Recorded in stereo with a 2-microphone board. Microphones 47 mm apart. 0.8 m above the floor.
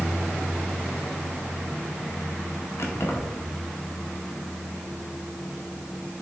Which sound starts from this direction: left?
Keys jangling, at 2.8 s.